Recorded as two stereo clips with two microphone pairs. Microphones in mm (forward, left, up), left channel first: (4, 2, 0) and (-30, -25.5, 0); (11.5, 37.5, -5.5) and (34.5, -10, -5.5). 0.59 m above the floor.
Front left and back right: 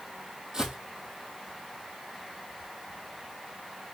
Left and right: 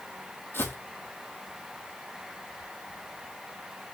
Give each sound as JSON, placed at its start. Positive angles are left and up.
{"t": 0.5, "sound": "footsteps", "azimuth_deg": 150, "distance_m": 0.9}